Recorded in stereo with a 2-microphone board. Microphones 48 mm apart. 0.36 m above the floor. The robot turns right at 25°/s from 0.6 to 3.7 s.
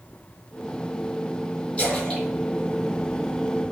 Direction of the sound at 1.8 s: 30° left (ahead or behind).